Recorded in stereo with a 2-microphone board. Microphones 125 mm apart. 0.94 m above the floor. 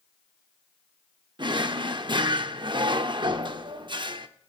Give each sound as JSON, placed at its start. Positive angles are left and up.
{"t": 1.4, "sound": "a drawer", "side_deg": -40, "distance_m": 0.6}